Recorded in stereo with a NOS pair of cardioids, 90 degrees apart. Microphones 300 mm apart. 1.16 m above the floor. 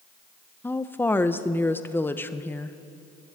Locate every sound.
0.6 s a woman speaking: 5° left, 0.6 m